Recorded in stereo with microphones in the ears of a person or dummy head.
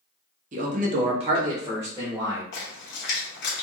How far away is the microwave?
I don't hear a microwave.